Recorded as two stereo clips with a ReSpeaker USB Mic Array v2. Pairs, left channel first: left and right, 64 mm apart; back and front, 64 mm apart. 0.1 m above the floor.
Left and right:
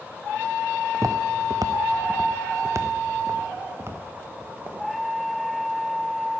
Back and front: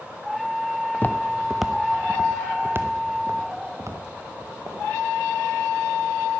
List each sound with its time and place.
0.9 s footsteps: 120° right, 0.6 m; by 4.8 s 35° right, 2 m